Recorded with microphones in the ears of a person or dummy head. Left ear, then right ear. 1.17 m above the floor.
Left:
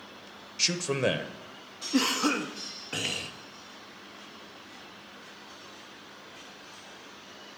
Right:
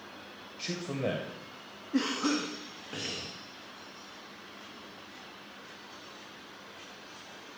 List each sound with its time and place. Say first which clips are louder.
0.6 s a man speaking: left 8 dB; 45° left (ahead or behind), 0.5 m
1.9 s a cough: left 4 dB; 30° left (ahead or behind), 0.5 m